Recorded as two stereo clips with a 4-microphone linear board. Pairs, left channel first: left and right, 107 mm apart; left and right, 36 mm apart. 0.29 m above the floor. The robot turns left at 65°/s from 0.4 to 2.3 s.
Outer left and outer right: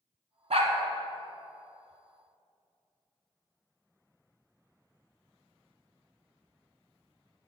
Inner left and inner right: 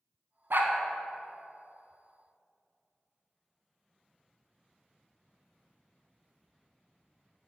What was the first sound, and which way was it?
A dog barking, 75° right (ahead or behind).